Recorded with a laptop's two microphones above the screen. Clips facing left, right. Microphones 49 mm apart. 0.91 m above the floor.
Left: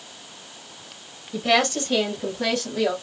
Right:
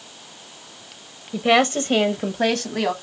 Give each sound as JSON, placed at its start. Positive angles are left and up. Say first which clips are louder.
{"t": 1.3, "sound": "a woman speaking", "louder": "right 3 dB", "side_deg": -20, "distance_m": 0.6}